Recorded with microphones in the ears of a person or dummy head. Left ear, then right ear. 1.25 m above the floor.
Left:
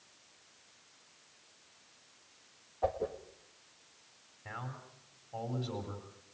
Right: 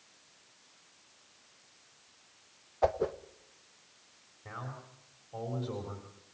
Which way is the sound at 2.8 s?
75° right (ahead or behind).